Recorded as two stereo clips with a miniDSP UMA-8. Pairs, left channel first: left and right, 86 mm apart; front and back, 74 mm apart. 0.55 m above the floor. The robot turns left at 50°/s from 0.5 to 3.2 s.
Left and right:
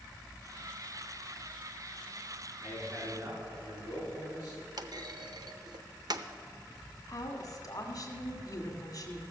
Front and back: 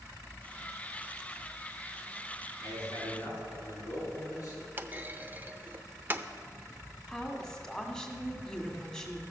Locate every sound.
2.6 s a man speaking: 10° right, 5.5 m; by 4.6 s 40° right, 5.5 m
4.8 s a clunk: 120° right, 0.6 m
7.1 s a woman speaking: 75° left, 1.8 m